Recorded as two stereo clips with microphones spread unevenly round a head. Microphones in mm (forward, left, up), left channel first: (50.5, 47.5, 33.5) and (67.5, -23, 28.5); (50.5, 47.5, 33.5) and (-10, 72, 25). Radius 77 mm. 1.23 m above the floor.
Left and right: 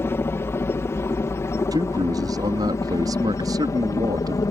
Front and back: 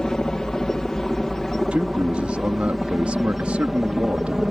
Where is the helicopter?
60° left; by 4.5 s 75° left.